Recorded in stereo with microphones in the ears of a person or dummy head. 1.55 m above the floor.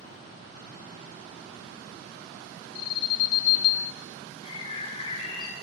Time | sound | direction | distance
2.8 | an alarm | 55° left (ahead or behind) | 2 m
4.4 | a bird | 35° left (ahead or behind) | 4 m